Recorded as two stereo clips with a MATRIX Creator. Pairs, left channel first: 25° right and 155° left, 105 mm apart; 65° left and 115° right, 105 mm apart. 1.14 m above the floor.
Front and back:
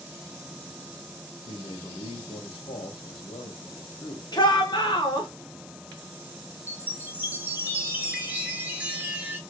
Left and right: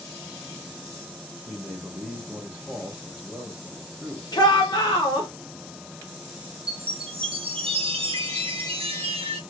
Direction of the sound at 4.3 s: 20° left.